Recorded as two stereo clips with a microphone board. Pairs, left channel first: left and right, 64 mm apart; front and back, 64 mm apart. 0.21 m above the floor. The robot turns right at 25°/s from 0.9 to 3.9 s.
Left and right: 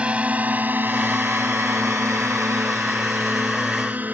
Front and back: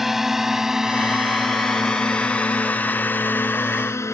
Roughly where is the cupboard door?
No cupboard door in this recording.